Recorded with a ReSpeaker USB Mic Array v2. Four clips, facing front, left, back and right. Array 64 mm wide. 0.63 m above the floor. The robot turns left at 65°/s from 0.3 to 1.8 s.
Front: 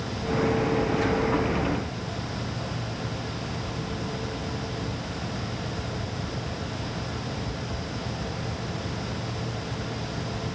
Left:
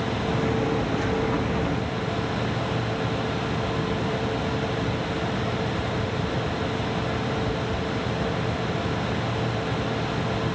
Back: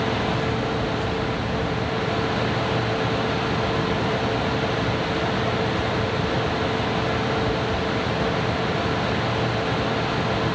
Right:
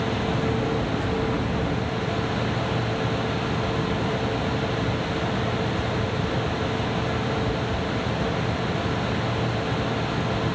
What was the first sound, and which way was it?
Only background noise.